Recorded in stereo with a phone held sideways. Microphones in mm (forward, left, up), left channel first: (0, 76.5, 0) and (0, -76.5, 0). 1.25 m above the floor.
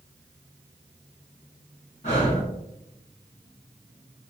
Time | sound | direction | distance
2.0 | breathing | 50° left (ahead or behind) | 1.8 m